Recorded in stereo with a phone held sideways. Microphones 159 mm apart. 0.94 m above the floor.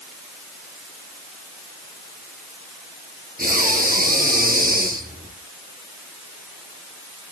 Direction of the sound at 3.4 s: 65° right (ahead or behind).